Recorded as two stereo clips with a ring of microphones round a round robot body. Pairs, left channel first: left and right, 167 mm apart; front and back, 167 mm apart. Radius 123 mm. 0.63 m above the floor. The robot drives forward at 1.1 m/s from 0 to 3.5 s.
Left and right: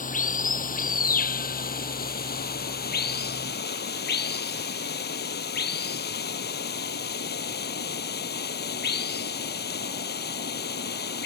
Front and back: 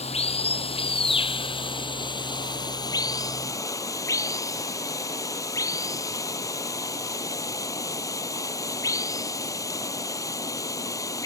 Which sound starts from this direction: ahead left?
Running water, at 0.0 s.